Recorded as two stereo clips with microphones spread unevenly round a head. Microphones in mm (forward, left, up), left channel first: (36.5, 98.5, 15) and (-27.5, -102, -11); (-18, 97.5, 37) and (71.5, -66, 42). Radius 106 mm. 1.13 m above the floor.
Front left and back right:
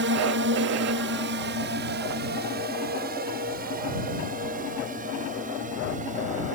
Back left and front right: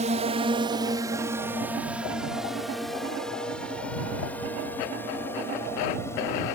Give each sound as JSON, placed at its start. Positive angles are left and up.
{"t": 0.0, "sound": "a drone", "azimuth_deg": -110}